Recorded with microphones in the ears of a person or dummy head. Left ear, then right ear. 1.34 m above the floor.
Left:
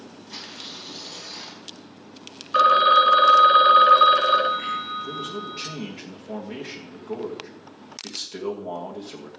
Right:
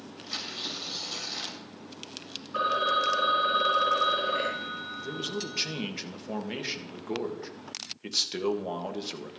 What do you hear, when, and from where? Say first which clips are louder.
0.3 s tearing paper: right 3 dB; 50° right (ahead or behind), 3 m
2.5 s a phone ringing: left 11 dB; 55° left (ahead or behind), 0.7 m
5.0 s a man speaking: left 3 dB; 30° right (ahead or behind), 1.6 m